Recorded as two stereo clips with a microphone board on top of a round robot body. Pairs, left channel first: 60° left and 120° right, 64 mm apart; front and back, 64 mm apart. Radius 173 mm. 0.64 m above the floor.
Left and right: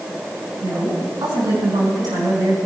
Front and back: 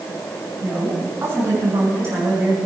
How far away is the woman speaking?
About 6 m.